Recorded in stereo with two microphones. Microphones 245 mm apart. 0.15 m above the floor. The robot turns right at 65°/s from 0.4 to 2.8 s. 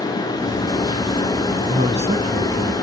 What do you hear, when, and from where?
1.7 s a man speaking: 25° right (ahead or behind), 1.2 m; by 2.7 s 10° right (ahead or behind), 1.2 m